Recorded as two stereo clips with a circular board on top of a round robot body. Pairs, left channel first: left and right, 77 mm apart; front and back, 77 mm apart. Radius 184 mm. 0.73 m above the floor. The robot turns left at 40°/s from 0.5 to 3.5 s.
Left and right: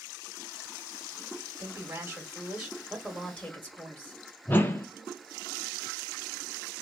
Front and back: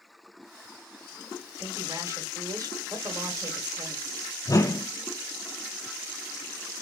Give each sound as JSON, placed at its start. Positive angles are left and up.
{"t": 1.6, "sound": "a woman speaking", "azimuth_deg": -130, "distance_m": 1.4}
{"t": 4.5, "sound": "a whoosh", "azimuth_deg": 30, "distance_m": 0.9}